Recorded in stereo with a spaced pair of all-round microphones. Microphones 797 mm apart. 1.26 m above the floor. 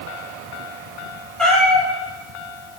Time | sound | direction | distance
1.4 | a cat meowing | centre (ahead or behind) | 5 m